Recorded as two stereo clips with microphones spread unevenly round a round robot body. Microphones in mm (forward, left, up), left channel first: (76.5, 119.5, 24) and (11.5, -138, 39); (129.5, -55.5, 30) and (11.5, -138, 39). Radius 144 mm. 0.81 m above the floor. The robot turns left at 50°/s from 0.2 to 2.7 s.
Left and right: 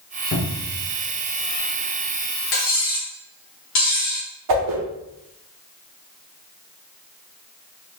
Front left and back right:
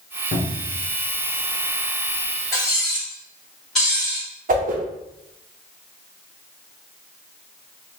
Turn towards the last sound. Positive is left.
turn(degrees=-125)